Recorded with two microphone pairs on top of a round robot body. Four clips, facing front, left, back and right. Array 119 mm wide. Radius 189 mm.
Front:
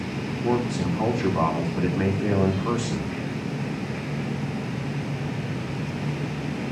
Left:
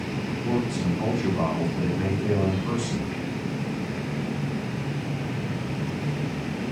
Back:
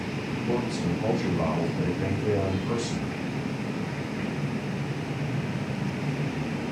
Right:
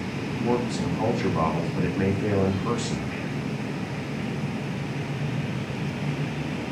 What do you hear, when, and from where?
0.4 s a man speaking: 35° right, 7 m